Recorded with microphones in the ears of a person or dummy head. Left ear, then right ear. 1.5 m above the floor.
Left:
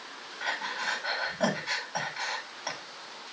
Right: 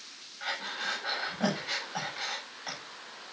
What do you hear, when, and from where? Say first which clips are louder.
0.4 s breathing: left 2 dB; 20° left (ahead or behind), 7 m